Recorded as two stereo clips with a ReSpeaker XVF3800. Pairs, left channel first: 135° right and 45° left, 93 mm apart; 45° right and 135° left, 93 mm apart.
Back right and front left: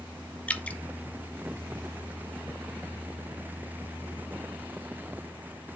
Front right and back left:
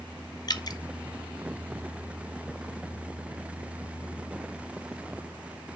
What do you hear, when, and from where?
0.5 s dripping: 65° right, 0.7 m